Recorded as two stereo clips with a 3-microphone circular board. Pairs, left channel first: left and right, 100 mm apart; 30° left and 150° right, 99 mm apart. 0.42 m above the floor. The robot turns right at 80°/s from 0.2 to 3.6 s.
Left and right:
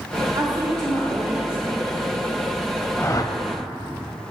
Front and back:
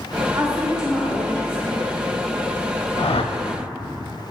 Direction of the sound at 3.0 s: 25° left.